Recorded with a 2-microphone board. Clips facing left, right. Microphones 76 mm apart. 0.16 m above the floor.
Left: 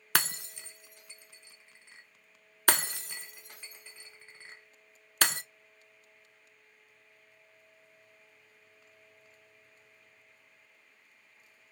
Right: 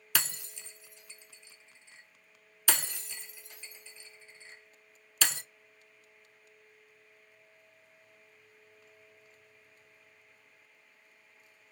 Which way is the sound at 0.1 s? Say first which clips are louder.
Left 4 dB; 55° left (ahead or behind).